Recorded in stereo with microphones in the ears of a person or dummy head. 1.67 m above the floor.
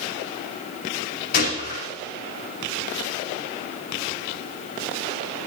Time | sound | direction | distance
1.3 | a gunshot | 50° left (ahead or behind) | 3 m